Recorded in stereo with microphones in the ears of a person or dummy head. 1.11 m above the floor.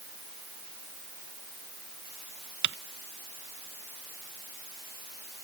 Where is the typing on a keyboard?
55° right (ahead or behind).